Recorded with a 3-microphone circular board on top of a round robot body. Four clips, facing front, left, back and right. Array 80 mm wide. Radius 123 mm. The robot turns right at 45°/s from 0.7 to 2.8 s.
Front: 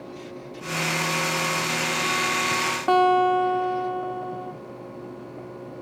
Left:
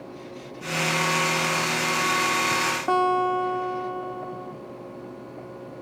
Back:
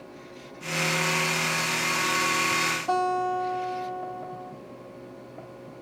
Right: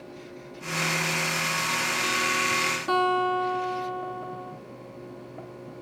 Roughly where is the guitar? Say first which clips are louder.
Left 2 dB, front 8 dB; ahead left.